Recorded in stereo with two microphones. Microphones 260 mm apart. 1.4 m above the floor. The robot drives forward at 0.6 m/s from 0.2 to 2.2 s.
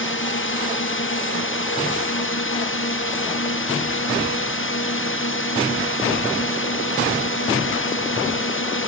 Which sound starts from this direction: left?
A drone, at 0.0 s.